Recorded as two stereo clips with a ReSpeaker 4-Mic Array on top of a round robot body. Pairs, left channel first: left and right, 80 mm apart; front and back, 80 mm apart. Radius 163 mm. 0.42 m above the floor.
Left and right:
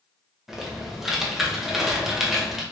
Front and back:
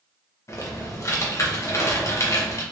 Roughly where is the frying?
No frying in this recording.